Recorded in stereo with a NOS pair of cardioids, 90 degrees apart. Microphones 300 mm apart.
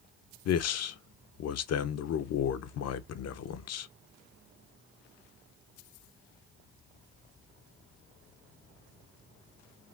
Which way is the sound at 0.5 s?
60° left.